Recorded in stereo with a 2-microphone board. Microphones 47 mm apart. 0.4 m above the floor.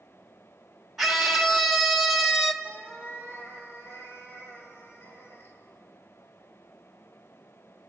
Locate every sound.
1.0 s a scream: 5° right (ahead or behind), 0.9 m
2.6 s a cat meowing: 40° left (ahead or behind), 4.5 m